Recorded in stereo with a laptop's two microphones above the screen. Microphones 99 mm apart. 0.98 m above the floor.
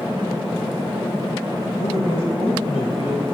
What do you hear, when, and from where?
1.6 s a man speaking: 85° left, 5 m; by 3.2 s 75° left (ahead or behind), 4.5 m